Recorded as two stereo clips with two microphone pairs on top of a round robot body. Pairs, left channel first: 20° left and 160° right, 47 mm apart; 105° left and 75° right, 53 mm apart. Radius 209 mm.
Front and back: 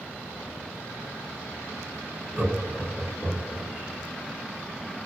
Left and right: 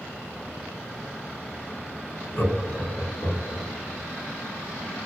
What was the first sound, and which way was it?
Laughter, 130° left.